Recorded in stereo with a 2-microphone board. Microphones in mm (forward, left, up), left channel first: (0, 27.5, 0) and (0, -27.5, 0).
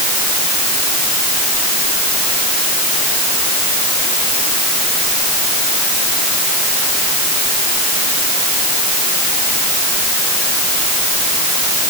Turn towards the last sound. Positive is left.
No sound to turn to.